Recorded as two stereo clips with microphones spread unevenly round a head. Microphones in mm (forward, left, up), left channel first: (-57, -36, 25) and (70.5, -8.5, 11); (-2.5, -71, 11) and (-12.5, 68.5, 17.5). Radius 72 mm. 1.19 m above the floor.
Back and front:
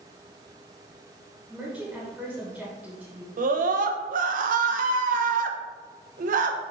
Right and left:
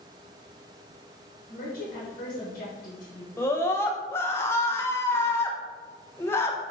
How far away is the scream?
About 0.6 m.